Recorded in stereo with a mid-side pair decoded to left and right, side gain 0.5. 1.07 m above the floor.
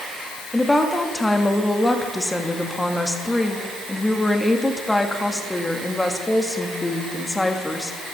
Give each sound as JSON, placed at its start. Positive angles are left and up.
{"t": 0.5, "sound": "a woman speaking", "azimuth_deg": 15, "distance_m": 1.9}